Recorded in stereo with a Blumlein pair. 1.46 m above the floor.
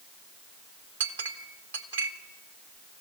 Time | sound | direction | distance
1.0 | a clink | 70° right | 1.4 m